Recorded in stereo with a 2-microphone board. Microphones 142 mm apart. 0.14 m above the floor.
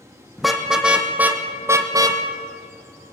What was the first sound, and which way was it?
A car horn, centre (ahead or behind).